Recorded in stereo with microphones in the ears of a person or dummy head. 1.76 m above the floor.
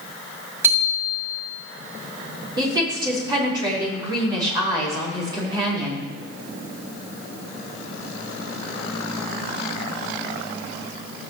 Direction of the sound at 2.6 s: 25° right (ahead or behind).